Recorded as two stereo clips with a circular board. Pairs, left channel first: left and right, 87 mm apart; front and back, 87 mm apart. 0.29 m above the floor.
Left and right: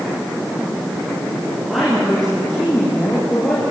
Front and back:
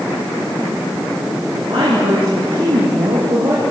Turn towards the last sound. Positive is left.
turn(degrees=160)